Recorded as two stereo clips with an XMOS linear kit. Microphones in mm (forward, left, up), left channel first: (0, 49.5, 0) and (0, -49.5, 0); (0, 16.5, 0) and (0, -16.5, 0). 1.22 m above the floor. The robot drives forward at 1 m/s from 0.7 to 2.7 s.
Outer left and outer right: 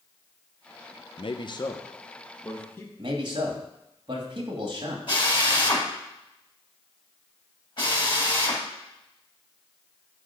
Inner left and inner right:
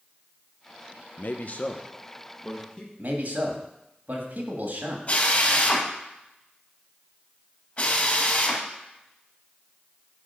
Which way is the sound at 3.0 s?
50° right (ahead or behind).